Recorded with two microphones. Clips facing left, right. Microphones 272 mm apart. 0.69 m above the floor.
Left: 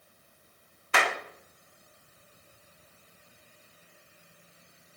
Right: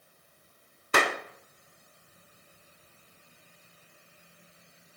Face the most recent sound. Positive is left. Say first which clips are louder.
# right 3 dB
turn(degrees=-45)  # may be behind; listen again after turning